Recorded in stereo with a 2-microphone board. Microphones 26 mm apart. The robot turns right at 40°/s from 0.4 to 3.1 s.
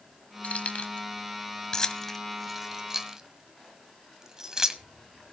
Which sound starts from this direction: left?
Keys jangling, at 0.4 s.